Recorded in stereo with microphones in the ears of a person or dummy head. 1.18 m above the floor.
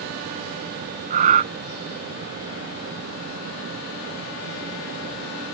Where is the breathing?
40° right (ahead or behind).